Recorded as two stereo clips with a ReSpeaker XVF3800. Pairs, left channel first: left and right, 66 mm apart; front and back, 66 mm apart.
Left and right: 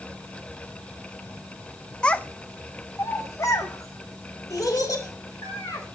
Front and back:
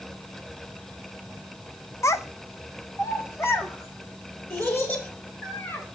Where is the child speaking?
20° left, 0.6 m; by 5.8 s 60° left, 3.5 m.